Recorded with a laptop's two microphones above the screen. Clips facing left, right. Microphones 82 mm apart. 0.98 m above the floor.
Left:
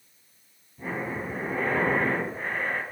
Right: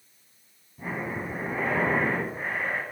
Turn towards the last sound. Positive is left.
turn(degrees=-10)  # may be behind; listen again after turning